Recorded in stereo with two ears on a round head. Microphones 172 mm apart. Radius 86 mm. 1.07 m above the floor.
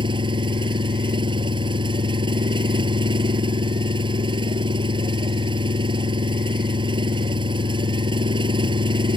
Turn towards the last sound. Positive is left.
turn(degrees=-25)  # may be behind; listen again after turning